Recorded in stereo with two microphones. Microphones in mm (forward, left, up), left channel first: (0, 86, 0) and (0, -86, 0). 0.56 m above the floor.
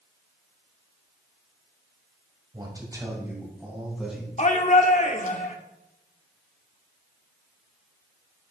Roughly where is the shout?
Left.